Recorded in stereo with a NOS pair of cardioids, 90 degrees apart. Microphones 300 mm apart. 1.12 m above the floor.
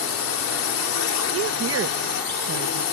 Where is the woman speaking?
50° right.